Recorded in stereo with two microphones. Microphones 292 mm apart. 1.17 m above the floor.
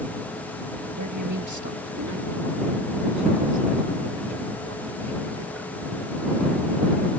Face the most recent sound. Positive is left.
turn(degrees=-60)  # may be behind; listen again after turning